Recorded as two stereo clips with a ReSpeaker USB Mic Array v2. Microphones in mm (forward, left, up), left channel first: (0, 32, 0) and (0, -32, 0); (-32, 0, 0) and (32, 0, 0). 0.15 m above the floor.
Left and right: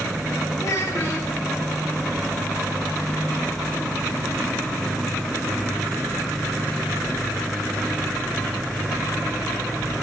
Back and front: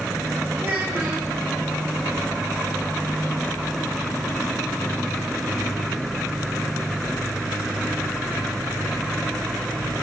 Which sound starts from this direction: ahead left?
A child speaking, at 0.6 s.